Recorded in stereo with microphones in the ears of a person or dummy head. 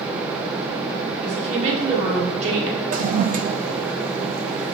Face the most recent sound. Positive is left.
turn(degrees=-45)  # may be behind; listen again after turning